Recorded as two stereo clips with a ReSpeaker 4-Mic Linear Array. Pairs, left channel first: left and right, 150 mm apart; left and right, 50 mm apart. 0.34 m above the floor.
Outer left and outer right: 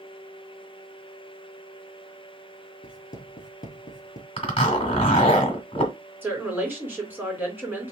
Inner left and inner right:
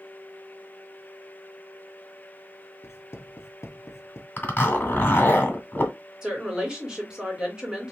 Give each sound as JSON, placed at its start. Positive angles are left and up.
{"t": 2.8, "sound": "writing", "side_deg": 65, "distance_m": 1.2}
{"t": 4.4, "sound": "a zipper", "side_deg": 40, "distance_m": 2.0}
{"t": 6.2, "sound": "a woman speaking", "side_deg": -15, "distance_m": 3.0}